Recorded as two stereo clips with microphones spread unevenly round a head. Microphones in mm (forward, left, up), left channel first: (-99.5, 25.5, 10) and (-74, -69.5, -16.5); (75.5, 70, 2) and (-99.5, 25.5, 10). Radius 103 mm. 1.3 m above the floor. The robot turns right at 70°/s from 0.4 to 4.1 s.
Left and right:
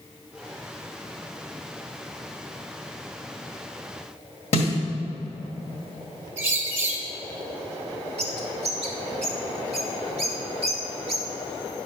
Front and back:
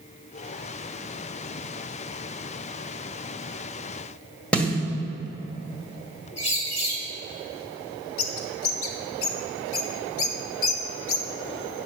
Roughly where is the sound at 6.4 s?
Ahead right.